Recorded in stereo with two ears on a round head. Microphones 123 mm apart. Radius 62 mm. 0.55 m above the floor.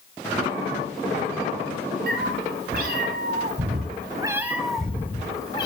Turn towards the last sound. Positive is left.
turn(degrees=35)  # may be behind; listen again after turning